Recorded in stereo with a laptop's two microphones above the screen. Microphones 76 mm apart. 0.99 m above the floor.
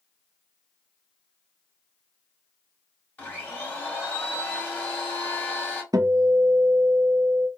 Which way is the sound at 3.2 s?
20° left (ahead or behind).